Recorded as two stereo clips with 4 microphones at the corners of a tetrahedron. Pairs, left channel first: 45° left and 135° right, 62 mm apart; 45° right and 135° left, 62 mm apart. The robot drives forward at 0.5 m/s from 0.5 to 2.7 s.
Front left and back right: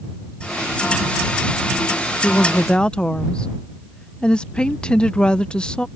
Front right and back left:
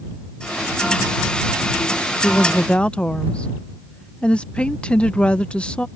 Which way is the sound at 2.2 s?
5° right.